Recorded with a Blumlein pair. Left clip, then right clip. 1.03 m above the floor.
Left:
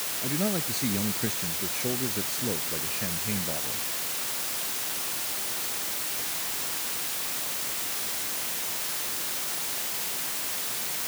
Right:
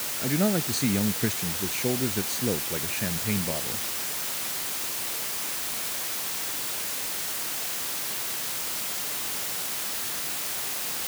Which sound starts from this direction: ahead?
A man speaking, at 0.2 s.